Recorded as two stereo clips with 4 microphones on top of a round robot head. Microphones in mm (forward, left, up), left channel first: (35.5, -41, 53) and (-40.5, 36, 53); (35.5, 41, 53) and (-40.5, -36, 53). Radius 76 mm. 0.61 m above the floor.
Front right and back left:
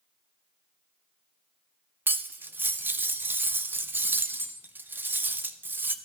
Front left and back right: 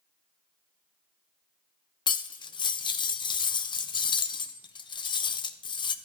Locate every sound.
2.1 s cutlery clinking: 70° left, 0.5 m